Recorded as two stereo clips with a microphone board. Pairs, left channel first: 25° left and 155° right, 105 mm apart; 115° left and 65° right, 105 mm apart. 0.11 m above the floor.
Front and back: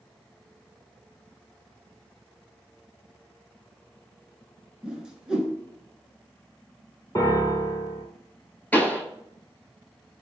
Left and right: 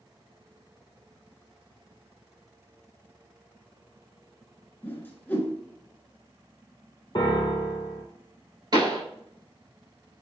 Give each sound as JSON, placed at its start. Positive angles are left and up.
{"t": 4.8, "sound": "a whoosh", "azimuth_deg": 135, "distance_m": 0.8}
{"t": 7.2, "sound": "a piano", "azimuth_deg": 80, "distance_m": 0.6}
{"t": 8.7, "sound": "a pop", "azimuth_deg": -45, "distance_m": 0.9}